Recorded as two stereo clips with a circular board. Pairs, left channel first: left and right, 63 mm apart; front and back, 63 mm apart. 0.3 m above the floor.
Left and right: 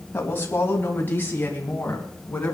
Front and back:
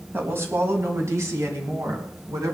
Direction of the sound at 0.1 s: 140° left.